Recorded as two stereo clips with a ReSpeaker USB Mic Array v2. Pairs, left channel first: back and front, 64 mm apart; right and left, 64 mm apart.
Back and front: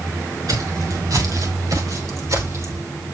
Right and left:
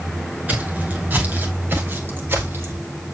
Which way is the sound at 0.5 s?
25° left.